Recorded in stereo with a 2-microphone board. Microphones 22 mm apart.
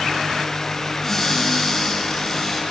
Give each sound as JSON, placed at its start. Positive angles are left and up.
{"t": 1.0, "sound": "a cupboard door", "side_deg": 5, "distance_m": 5.0}